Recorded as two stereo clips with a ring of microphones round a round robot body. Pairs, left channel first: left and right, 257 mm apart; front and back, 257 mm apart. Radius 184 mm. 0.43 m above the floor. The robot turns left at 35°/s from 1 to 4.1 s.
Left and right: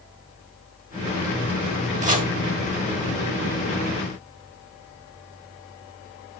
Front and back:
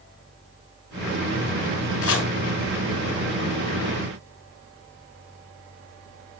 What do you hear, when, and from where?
2.0 s chopping: 25° right, 3 m; by 2.3 s 35° right, 3 m